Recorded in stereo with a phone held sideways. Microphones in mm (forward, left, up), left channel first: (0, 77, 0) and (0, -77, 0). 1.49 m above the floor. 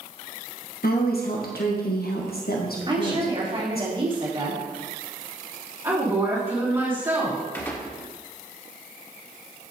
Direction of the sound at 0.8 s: 80° left.